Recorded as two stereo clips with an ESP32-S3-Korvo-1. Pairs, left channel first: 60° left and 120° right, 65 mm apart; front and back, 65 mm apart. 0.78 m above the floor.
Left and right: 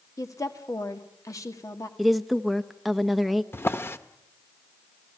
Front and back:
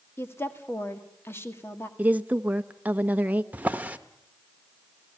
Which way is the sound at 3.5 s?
115° left.